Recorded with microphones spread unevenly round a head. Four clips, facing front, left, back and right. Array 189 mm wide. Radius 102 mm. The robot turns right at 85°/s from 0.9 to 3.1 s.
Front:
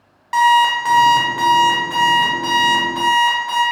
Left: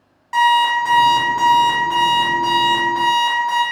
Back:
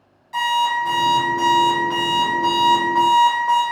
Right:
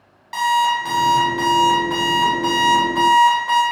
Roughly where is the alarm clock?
Ahead.